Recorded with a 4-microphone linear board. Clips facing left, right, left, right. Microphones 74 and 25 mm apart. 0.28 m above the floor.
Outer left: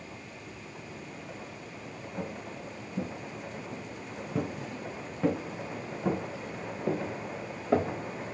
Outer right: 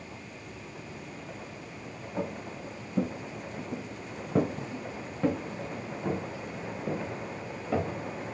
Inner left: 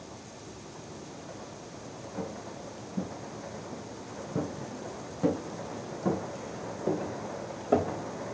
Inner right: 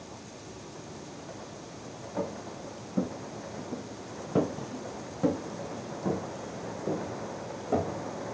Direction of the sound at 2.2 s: 55° right (ahead or behind).